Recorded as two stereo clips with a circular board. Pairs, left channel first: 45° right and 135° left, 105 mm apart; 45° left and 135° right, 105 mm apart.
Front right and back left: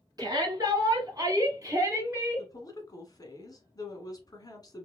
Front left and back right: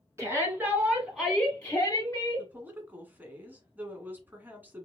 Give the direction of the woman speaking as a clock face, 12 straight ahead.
2 o'clock.